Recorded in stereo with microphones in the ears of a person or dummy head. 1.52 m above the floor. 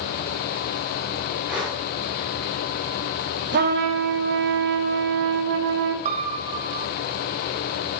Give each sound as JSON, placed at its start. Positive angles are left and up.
{"t": 1.5, "sound": "breathing", "side_deg": 0, "distance_m": 1.3}
{"t": 3.5, "sound": "a trumpet", "side_deg": -50, "distance_m": 0.8}
{"t": 6.0, "sound": "a piano", "side_deg": -35, "distance_m": 0.5}